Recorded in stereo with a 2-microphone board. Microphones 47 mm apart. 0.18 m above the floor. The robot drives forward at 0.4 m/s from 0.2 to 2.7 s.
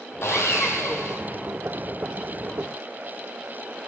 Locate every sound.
0.2 s sawing: 75° left (ahead or behind), 1.0 m; by 1.2 s 80° left, 1.0 m